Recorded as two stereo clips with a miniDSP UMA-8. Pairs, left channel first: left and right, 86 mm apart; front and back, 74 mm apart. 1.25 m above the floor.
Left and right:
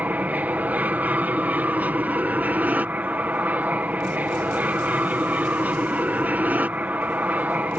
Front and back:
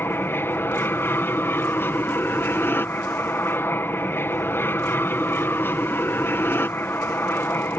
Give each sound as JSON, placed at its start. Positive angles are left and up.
{"t": 0.0, "sound": "an aircraft", "azimuth_deg": -30}